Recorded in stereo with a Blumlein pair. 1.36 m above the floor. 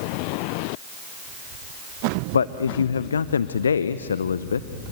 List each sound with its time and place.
2.3 s a man speaking: 70° left, 0.6 m